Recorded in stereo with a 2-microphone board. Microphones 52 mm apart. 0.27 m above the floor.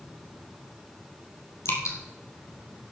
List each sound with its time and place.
1.6 s dripping: 85° left, 2.5 m